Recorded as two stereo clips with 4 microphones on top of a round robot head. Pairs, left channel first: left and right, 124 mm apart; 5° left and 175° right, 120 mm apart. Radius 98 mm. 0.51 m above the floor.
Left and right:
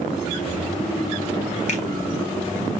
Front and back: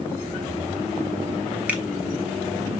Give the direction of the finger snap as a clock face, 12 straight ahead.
8 o'clock.